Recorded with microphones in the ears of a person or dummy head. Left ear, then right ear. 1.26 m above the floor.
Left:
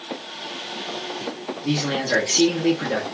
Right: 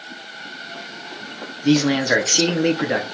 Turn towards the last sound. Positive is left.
turn(degrees=-50)  # may be behind; listen again after turning